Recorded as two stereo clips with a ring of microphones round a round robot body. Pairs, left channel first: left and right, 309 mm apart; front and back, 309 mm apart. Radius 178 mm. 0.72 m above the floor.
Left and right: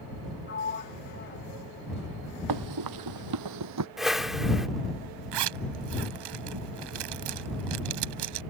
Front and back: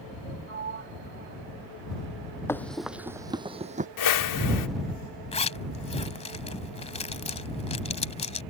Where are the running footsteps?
80° right; by 3.9 s 115° right.